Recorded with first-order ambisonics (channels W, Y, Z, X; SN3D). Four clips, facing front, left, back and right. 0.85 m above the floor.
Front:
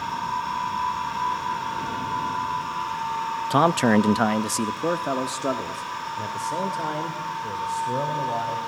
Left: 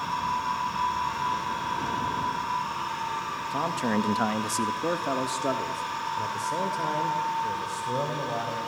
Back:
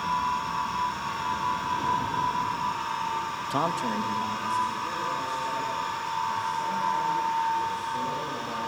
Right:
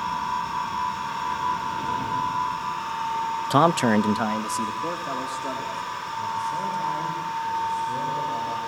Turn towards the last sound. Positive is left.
turn(degrees=35)